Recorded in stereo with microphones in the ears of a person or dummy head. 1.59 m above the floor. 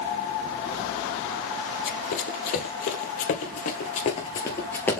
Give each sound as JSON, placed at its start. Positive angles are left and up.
{"t": 1.9, "sound": "running footsteps", "side_deg": 50, "distance_m": 2.5}